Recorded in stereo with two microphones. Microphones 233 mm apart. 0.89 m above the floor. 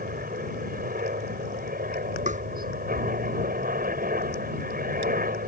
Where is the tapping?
30° right (ahead or behind).